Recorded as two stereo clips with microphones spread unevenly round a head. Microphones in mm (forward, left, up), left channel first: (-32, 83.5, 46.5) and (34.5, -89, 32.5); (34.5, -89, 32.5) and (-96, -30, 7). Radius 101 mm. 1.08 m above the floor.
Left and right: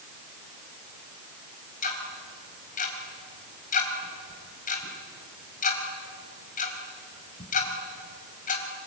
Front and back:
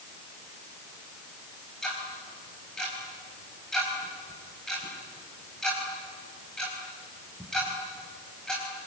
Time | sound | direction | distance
1.8 | ticking | 60° left | 4 m